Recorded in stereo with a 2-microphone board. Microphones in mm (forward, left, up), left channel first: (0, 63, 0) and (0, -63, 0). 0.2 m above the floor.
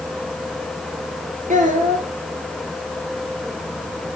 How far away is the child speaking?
About 2.5 m.